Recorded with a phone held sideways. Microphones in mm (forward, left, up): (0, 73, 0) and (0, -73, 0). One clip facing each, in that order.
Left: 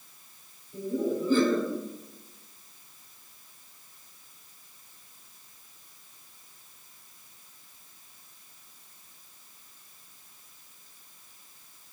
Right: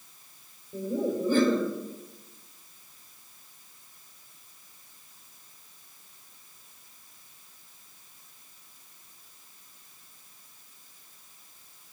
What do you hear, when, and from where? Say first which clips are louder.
0.7 s laughter: even; 55° right (ahead or behind), 3 m